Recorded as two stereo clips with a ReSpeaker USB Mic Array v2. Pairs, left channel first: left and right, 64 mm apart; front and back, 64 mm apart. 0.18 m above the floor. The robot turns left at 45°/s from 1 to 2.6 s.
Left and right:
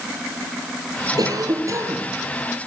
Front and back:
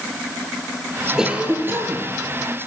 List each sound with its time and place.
1.2 s a cough: 100° right, 6.5 m; by 2.1 s 140° right, 6.5 m